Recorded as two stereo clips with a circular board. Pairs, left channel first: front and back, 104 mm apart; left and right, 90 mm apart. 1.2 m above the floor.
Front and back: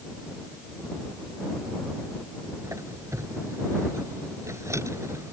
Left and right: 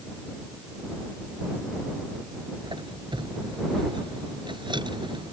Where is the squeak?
120° right.